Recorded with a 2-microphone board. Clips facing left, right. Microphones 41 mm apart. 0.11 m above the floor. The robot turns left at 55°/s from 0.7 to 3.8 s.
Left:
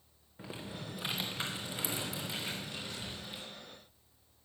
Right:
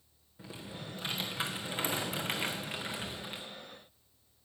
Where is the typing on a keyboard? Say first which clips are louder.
Left 1 dB; 25° left, 1.9 m; by 3.5 s 125° right, 1.9 m.